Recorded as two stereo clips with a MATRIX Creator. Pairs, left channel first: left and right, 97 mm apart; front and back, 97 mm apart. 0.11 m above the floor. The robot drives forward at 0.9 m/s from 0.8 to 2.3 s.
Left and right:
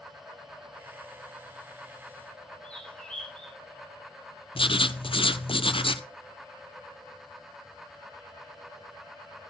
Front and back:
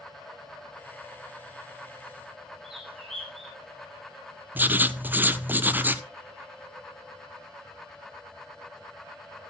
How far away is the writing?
About 0.6 m.